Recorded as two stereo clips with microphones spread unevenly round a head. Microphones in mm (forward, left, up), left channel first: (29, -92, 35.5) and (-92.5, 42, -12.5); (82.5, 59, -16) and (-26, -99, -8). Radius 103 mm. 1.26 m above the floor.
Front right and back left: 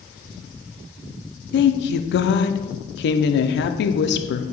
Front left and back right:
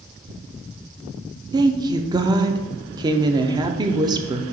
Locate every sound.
1.5 s a woman speaking: 60° right, 0.6 m